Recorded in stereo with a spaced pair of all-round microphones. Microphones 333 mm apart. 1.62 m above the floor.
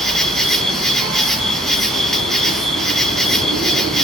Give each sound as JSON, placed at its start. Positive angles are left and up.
{"t": 0.0, "sound": "an insect", "side_deg": 0, "distance_m": 1.4}